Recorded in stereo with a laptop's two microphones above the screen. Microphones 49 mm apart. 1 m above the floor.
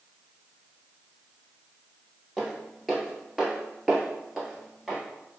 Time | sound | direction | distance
2.4 | footsteps | centre (ahead or behind) | 1.1 m